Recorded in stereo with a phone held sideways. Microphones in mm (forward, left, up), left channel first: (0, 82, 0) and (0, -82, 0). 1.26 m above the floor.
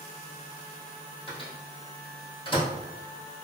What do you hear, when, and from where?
1.3 s a microwave: 30° left (ahead or behind), 1.7 m